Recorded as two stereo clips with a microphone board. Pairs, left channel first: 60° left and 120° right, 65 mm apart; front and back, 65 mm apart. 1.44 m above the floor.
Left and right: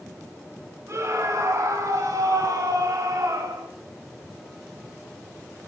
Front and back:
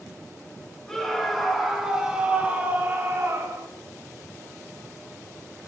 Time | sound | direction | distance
0.9 | a scream | 80° right | 3 m